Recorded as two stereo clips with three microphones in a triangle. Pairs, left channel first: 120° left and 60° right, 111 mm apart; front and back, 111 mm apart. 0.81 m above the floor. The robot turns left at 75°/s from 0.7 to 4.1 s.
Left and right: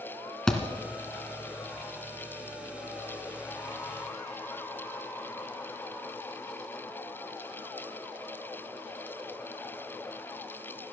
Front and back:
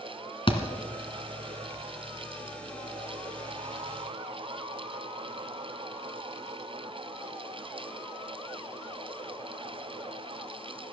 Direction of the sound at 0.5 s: 35° left.